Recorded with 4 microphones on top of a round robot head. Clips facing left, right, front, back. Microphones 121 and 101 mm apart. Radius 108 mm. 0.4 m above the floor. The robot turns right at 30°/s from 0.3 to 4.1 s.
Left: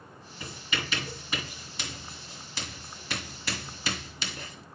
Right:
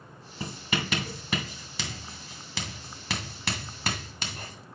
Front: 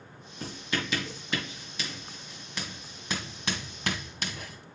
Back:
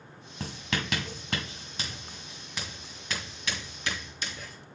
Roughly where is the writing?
Behind.